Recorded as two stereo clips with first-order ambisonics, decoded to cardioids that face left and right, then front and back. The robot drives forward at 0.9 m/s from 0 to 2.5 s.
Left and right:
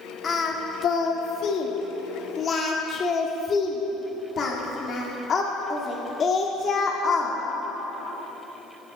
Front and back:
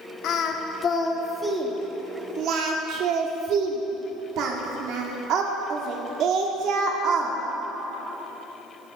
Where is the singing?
30° left, 1.5 m; by 7.4 s 150° left, 1.5 m.